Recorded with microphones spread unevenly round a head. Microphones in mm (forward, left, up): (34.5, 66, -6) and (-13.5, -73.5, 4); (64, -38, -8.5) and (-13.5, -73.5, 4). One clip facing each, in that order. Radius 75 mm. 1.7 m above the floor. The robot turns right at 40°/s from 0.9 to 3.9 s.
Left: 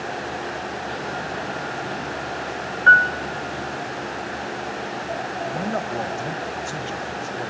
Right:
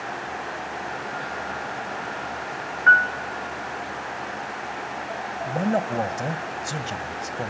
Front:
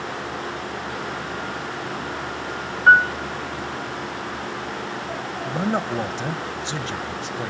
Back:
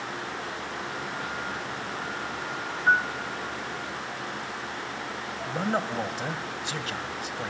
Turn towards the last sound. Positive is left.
turn(degrees=-40)